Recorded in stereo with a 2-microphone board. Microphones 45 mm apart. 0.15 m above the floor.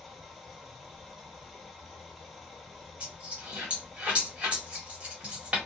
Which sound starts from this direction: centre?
Running water, at 0.0 s.